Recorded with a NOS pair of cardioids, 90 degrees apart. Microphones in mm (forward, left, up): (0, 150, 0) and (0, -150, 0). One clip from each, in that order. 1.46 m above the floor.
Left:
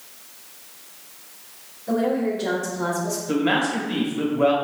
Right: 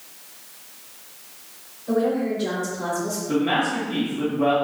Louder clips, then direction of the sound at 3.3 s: Even; 50° left.